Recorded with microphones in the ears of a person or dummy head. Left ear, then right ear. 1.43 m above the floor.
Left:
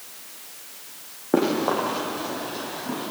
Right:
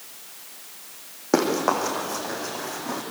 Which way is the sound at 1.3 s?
75° right (ahead or behind).